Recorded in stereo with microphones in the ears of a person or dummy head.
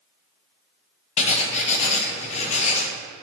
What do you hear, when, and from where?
1.2 s writing: 45° left (ahead or behind), 0.6 m